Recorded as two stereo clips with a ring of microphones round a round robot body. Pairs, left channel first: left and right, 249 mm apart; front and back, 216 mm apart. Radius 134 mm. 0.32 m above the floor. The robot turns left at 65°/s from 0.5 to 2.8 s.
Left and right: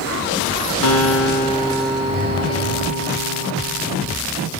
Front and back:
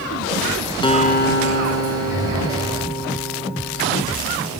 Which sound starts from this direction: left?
A guitar, at 0.8 s.